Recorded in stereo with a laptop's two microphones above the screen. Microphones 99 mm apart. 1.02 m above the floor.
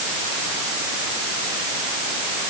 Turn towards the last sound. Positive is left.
No sound to turn to.